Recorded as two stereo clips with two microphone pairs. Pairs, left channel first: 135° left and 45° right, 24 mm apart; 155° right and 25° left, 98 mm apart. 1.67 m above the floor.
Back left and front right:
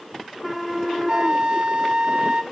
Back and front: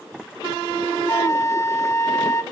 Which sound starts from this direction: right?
A flute, at 1.1 s.